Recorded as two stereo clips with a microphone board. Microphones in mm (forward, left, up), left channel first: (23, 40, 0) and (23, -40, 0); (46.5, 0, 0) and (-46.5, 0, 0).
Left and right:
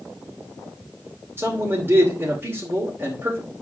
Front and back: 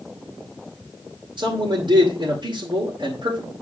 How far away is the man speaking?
About 2.5 m.